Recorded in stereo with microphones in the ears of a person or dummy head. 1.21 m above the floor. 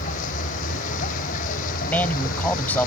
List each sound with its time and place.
0.0 s a vehicle: 45° left (ahead or behind)
1.8 s a man speaking: 10° left (ahead or behind)